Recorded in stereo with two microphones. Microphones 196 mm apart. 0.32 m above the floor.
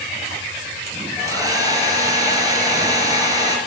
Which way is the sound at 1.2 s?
20° right (ahead or behind).